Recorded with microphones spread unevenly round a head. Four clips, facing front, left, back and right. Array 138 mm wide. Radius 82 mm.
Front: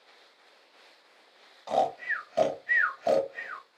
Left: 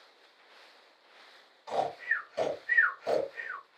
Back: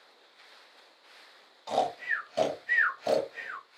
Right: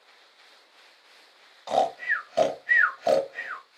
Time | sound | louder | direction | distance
1.7 | snoring | right 7 dB, front 2 dB | 110° right | 1.6 m